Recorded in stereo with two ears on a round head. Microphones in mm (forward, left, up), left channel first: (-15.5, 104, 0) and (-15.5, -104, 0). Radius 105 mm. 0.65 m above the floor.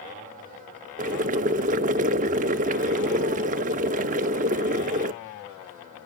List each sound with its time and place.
1.0 s boiling: 35° right (ahead or behind), 0.7 m